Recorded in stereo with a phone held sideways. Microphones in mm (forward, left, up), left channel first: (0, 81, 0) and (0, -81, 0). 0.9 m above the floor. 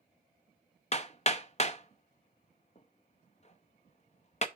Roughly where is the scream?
No scream in this recording.